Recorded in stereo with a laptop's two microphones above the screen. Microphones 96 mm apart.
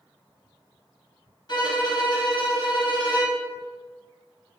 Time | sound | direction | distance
1.5 | a violin | 50° left (ahead or behind) | 1.4 m